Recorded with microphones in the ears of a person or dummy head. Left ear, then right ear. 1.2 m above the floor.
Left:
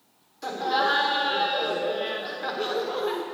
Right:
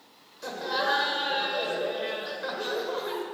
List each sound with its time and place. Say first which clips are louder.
0.4 s laughter: left 4 dB; 15° left (ahead or behind), 1.5 m